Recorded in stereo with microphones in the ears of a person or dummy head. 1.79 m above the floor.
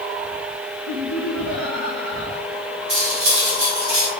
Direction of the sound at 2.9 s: 70° right (ahead or behind).